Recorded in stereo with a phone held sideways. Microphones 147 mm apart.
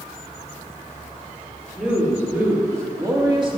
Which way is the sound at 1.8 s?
5° right (ahead or behind).